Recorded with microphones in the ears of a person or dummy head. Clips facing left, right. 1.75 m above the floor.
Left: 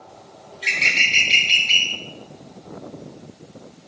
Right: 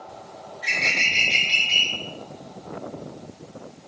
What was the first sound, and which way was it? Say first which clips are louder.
A bird: even; 30° left (ahead or behind).